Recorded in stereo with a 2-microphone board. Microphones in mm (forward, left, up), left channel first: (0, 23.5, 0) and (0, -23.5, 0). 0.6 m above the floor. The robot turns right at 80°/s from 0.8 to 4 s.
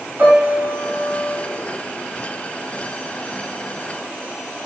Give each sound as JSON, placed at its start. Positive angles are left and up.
{"t": 0.2, "sound": "a piano", "azimuth_deg": -75, "distance_m": 2.0}